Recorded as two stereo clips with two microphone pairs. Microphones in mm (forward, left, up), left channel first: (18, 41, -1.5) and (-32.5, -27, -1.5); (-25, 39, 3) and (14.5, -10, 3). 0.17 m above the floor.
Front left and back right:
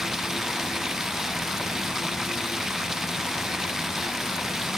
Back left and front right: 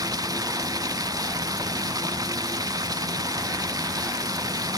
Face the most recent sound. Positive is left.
turn(degrees=-40)